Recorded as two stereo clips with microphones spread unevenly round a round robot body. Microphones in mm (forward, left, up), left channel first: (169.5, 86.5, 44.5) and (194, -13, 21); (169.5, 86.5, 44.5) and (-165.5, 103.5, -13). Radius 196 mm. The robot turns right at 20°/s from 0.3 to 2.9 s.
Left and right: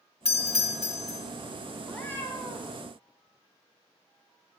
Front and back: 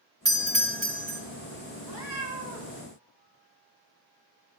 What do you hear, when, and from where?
0.2 s a doorbell: 80° left, 2.5 m; by 1.2 s 100° left, 2.5 m
1.8 s a cat meowing: 25° left, 4 m; by 2.8 s 45° left, 4 m